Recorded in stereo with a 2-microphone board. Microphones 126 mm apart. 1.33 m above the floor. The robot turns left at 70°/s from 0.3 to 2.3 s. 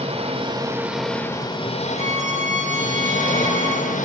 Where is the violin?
60° right (ahead or behind), 2 m; by 4.0 s 80° right, 2 m.